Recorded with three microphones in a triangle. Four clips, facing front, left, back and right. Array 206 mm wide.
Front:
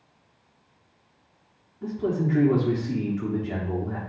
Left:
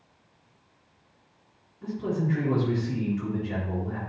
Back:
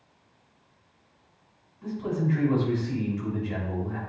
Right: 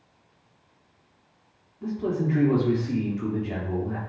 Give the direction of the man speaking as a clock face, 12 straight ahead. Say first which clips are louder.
Right 2 dB, front 3 dB; 1 o'clock.